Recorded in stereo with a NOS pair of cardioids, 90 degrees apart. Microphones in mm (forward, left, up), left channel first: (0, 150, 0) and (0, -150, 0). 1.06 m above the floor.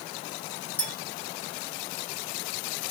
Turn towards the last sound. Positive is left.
turn(degrees=5)